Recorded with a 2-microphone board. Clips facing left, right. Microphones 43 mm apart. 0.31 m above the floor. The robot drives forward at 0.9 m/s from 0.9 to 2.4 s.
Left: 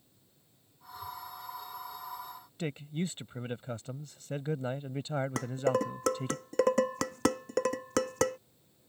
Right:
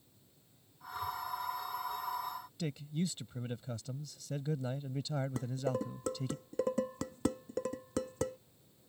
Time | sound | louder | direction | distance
2.6 | a man speaking | left 3 dB | 40° left (ahead or behind) | ?
5.4 | dishes clattering | left 9 dB | 80° left | ?